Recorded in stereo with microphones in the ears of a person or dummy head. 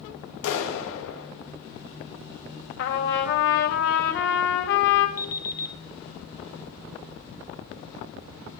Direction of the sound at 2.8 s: 55° left (ahead or behind).